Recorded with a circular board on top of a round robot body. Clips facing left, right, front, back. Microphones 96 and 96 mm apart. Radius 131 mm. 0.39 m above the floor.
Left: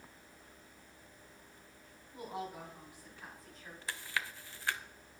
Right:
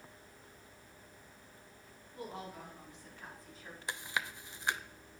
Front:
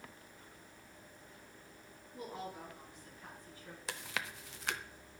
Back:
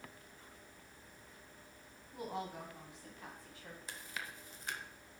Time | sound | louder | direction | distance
2.1 | a woman speaking | left 2 dB, back 2 dB | 160° left | 5.5 m
3.9 | chewing | right 1 dB, front 6 dB | 20° right | 0.5 m